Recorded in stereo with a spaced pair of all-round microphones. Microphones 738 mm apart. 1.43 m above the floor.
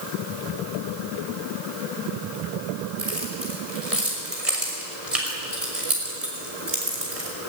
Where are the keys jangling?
50° right (ahead or behind), 5.5 m.